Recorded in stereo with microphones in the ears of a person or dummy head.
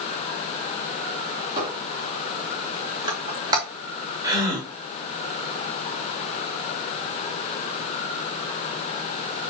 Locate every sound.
1.6 s a squeak: 20° right (ahead or behind), 2.0 m
4.2 s a gasp: 20° right (ahead or behind), 3.5 m